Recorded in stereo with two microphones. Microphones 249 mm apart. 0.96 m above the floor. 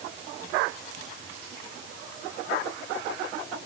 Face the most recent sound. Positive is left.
No sound to turn to.